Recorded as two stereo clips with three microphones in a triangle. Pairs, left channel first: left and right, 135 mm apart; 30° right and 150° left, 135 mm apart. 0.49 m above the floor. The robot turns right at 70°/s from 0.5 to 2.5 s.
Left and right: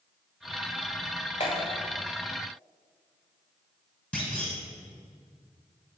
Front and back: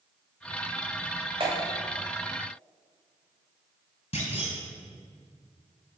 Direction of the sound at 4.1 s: 10° left.